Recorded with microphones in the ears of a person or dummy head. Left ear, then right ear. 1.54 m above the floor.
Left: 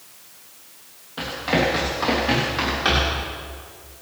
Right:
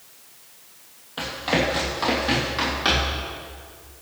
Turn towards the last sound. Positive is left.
turn(degrees=-5)  # may be behind; listen again after turning